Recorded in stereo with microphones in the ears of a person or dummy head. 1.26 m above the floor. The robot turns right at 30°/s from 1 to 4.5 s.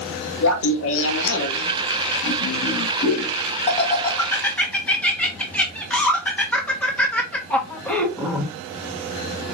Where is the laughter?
65° left (ahead or behind), 1.1 m; by 8.5 s 5° left (ahead or behind), 1.1 m.